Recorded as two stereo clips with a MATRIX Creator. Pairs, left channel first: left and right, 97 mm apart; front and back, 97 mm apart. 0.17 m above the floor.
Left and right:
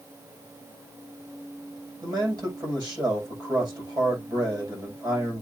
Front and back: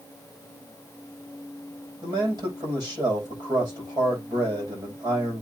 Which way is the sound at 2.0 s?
135° right.